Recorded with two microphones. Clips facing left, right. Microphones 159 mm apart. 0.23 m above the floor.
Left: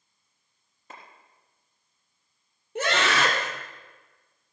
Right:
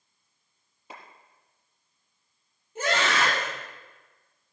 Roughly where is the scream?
Left.